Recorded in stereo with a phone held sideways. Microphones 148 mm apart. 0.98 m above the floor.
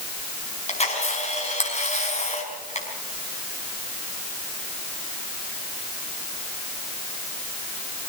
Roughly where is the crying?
I don't hear crying.